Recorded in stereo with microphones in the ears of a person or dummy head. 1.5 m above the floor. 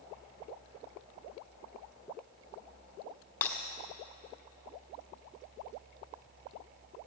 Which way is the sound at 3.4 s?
10° left (ahead or behind).